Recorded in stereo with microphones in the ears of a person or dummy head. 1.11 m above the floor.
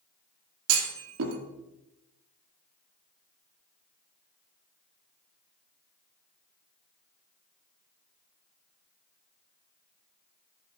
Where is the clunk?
80° right, 2.0 m.